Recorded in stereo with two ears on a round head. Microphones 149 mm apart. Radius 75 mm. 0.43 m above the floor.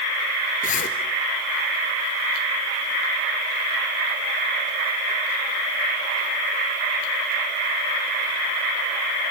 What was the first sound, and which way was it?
A zipper, 50° left (ahead or behind).